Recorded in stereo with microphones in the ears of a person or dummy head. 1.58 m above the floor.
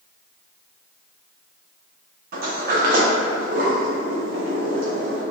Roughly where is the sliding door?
Right.